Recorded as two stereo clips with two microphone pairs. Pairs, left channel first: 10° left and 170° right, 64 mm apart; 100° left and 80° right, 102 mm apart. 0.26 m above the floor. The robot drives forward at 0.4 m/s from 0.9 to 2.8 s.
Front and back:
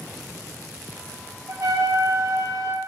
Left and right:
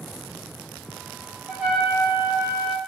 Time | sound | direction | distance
1.5 | a trumpet | 155° right | 0.8 m